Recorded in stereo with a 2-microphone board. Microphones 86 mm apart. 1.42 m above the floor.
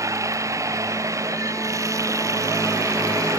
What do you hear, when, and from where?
0.0 s running water: 35° right (ahead or behind)